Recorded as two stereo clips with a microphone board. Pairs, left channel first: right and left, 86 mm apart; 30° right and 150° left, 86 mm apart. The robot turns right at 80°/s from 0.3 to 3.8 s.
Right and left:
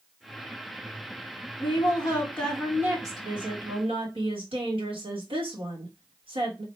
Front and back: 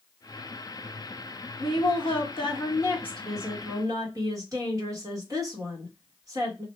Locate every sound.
1.6 s a woman speaking: 80° right, 1.3 m; by 6.7 s 100° left, 1.3 m